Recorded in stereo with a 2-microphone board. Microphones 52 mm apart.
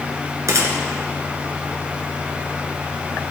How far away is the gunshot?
About 1.7 m.